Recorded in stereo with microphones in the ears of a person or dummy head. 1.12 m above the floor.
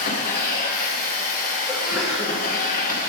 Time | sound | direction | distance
0.0 | a machine running | 45° left (ahead or behind) | 0.9 m
1.7 | a sneeze | centre (ahead or behind) | 1.3 m